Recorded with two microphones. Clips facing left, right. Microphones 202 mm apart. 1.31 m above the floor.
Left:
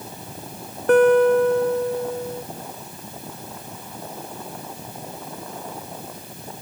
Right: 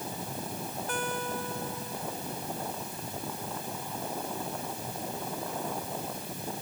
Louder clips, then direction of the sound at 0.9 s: Left 23 dB; 65° left (ahead or behind).